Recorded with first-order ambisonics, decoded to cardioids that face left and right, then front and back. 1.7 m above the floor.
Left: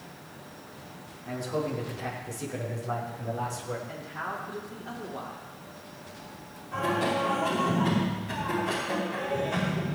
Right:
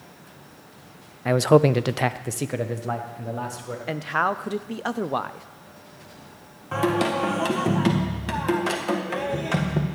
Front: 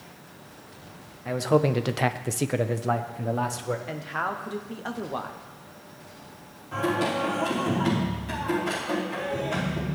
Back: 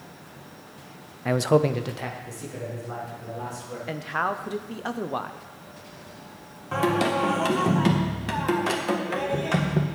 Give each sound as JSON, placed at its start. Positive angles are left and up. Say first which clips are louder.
{"t": 1.2, "sound": "a man speaking", "louder": "right 14 dB, back 2 dB", "azimuth_deg": -115, "distance_m": 0.6}
{"t": 3.9, "sound": "a man speaking", "louder": "right 12 dB, back 3 dB", "azimuth_deg": -100, "distance_m": 0.8}
{"t": 6.7, "sound": "singing", "louder": "right 4 dB, back 3 dB", "azimuth_deg": -130, "distance_m": 2.0}